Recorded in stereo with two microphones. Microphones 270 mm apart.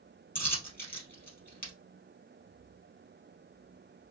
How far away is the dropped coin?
About 2.0 m.